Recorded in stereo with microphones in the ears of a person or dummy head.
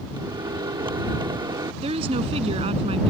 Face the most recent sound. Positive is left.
turn(degrees=-30)  # may be behind; listen again after turning